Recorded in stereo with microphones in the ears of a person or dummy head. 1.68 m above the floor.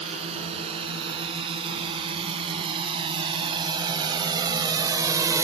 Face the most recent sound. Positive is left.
turn(degrees=-10)  # may be behind; listen again after turning